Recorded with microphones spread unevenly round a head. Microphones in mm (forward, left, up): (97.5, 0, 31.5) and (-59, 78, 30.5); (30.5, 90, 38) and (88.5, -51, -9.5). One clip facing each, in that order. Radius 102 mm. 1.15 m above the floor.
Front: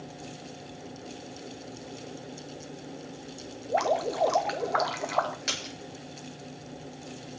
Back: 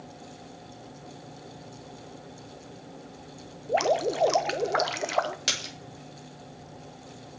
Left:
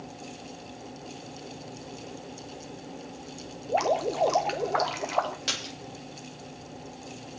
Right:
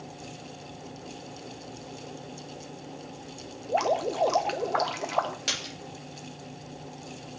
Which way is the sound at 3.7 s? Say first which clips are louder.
Back 2 dB, even; 145° right.